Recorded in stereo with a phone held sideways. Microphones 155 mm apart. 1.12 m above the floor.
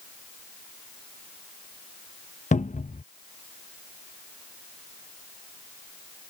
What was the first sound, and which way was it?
A cupboard door, 50° left (ahead or behind).